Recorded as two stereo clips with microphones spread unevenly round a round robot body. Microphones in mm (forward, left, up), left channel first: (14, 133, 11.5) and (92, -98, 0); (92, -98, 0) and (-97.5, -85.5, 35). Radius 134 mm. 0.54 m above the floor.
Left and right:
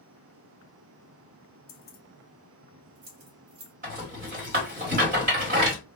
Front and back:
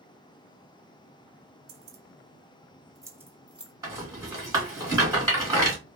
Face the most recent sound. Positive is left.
turn(degrees=-110)